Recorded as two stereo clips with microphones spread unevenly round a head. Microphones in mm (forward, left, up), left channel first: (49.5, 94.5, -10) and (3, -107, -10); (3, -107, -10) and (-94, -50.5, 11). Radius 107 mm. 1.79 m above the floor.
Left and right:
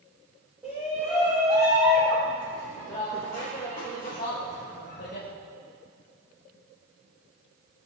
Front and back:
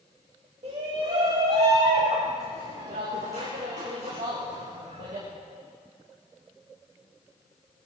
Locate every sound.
0.6 s a shout: 175° left, 3.5 m; by 5.3 s 125° left, 3 m